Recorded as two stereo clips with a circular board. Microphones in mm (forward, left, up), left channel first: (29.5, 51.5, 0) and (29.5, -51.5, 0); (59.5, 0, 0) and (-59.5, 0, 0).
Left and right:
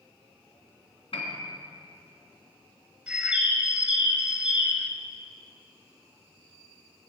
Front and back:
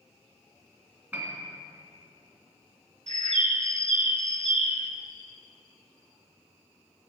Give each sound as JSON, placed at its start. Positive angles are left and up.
{"t": 1.1, "sound": "a piano", "azimuth_deg": 105, "distance_m": 2.5}
{"t": 3.1, "sound": "a bird", "azimuth_deg": -170, "distance_m": 0.8}